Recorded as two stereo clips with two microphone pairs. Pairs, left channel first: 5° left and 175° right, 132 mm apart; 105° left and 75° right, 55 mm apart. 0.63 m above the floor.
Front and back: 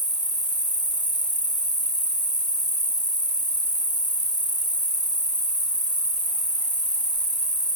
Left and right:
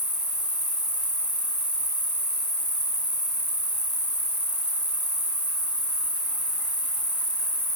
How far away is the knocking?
No knocking in this recording.